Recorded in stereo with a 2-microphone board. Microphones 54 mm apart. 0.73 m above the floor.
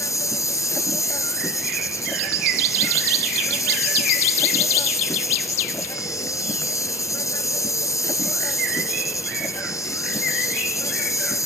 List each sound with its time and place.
0.0 s an insect: 80° left